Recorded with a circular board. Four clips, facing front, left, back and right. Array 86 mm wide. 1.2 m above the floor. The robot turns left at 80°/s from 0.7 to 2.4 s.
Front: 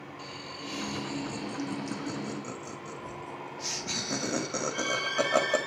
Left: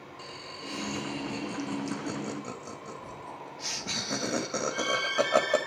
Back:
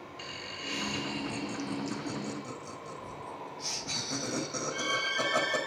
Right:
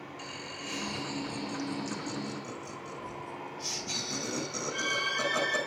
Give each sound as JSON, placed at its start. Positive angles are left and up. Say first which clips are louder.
{"t": 0.2, "sound": "laughter", "louder": "left 2 dB, front 1 dB", "azimuth_deg": -170, "distance_m": 2.5}